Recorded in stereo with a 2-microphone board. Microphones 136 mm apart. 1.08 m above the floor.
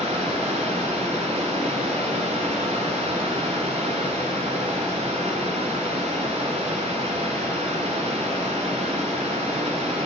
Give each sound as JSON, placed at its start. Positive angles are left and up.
{"t": 0.0, "sound": "running water", "side_deg": -50, "distance_m": 2.0}